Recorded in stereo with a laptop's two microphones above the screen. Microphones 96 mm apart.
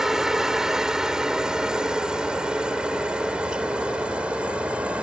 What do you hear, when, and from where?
0.0 s a helicopter: 5° right (ahead or behind); by 5.0 s 10° right (ahead or behind)